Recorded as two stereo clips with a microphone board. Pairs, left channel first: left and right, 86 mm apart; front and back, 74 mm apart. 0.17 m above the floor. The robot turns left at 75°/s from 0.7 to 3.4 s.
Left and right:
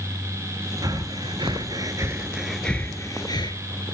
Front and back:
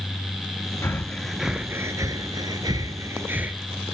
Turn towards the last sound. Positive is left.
turn(degrees=115)